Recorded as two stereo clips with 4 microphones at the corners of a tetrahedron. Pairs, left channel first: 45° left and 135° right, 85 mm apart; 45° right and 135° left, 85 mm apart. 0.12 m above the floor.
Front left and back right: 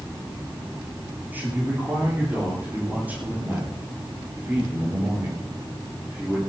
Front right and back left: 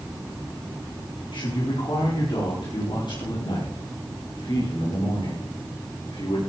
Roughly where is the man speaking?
Ahead right.